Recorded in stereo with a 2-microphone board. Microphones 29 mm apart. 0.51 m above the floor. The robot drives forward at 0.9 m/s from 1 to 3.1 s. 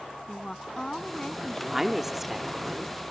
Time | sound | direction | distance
0.3 | a woman speaking | 20° left (ahead or behind) | ?
1.7 | a woman speaking | 10° right (ahead or behind) | ?